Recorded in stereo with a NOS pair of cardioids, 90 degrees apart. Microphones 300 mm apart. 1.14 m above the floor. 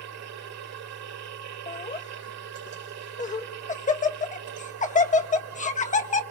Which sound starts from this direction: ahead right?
A machine running, at 0.0 s.